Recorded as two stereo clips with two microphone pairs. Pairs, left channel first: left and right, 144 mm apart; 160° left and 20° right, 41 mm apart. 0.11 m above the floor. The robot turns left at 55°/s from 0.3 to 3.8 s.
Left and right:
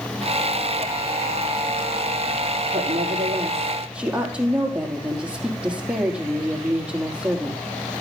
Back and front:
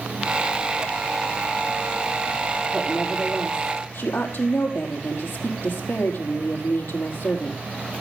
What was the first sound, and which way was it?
A woman speaking, 115° right.